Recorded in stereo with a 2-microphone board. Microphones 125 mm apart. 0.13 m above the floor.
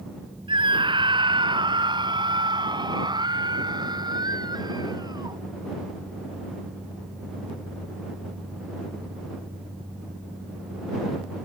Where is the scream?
40° right (ahead or behind); by 5.4 s 30° right (ahead or behind).